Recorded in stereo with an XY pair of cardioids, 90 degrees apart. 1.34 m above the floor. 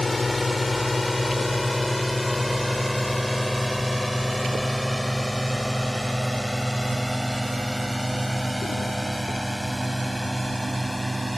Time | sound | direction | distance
0.0 | a drone | 25° left | ?